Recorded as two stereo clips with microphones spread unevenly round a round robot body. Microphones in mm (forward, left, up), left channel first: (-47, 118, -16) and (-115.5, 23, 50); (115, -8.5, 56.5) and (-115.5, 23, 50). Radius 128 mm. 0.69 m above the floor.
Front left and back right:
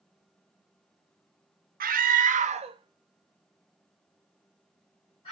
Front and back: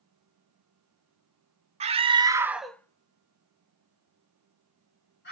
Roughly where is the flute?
No flute in this recording.